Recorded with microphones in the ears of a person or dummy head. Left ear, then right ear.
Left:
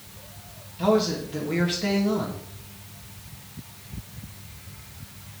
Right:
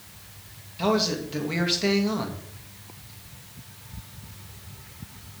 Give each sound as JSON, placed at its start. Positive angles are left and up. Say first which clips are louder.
{"t": 0.8, "sound": "a man speaking", "louder": "left 2 dB", "side_deg": -35, "distance_m": 3.0}